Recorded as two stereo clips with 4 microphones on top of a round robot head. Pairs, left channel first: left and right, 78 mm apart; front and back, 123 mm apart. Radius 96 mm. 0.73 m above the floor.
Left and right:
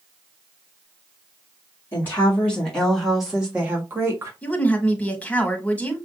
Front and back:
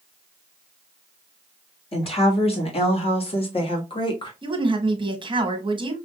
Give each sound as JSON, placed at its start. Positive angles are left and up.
{"t": 1.9, "sound": "a woman speaking", "azimuth_deg": 30, "distance_m": 1.9}
{"t": 4.4, "sound": "a woman speaking", "azimuth_deg": 155, "distance_m": 1.4}